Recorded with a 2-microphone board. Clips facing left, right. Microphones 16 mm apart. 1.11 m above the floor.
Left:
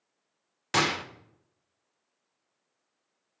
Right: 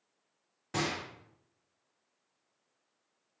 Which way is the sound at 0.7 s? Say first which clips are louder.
Left 8 dB; 55° left (ahead or behind).